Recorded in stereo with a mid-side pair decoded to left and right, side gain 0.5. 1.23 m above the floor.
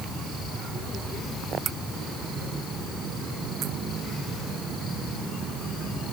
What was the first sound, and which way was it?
Only background noise.